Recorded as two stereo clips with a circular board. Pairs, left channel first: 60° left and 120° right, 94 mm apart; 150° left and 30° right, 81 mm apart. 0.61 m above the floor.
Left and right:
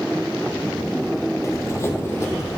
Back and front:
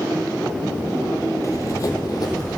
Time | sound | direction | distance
1.4 | running footsteps | 110° left | 1.0 m